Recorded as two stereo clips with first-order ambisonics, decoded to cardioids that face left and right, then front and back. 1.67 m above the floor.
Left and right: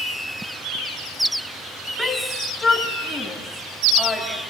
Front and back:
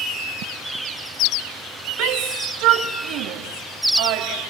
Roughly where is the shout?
Behind.